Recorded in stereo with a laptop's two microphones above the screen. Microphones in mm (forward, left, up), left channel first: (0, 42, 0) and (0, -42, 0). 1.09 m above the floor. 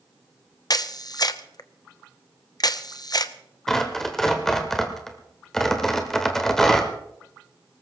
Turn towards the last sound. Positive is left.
turn(degrees=5)  # may be behind; listen again after turning